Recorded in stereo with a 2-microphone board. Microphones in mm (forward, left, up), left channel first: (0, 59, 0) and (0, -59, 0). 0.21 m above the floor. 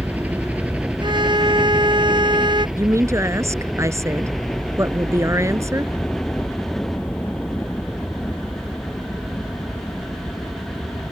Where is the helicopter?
15° right (ahead or behind); by 11.1 s 20° left (ahead or behind).